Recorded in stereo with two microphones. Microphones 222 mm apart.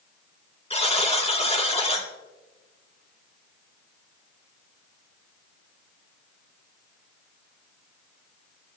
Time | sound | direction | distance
0.7 | a buzzer | 25° left (ahead or behind) | 2.5 m